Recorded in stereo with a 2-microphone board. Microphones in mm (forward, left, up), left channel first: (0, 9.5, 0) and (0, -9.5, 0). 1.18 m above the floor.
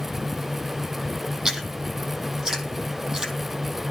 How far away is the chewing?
About 8.5 m.